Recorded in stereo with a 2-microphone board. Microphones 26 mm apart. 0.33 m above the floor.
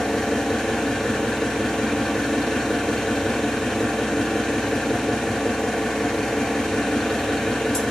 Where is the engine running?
15° left (ahead or behind), 1.7 m.